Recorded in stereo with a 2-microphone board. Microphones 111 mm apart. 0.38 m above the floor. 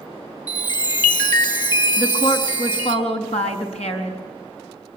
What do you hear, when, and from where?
0.5 s a chime: 40° left (ahead or behind), 2.5 m
2.0 s a woman speaking: 70° left (ahead or behind), 4 m